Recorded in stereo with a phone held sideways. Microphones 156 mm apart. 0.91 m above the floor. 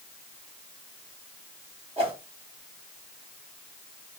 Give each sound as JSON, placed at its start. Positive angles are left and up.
{"t": 2.0, "sound": "a whoosh", "side_deg": -35, "distance_m": 1.2}